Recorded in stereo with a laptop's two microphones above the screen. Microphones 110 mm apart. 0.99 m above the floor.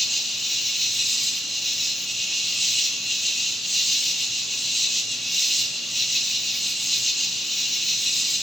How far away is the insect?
About 1.0 m.